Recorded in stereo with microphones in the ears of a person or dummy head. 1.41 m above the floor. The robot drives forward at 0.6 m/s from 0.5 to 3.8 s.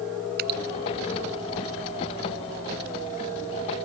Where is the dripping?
55° right (ahead or behind).